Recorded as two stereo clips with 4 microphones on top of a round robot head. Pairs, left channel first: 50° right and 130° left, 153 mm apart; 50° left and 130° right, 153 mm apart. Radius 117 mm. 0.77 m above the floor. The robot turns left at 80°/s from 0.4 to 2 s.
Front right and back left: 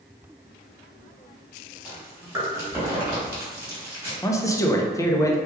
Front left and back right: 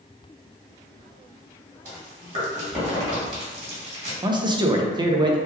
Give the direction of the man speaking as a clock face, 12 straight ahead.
3 o'clock.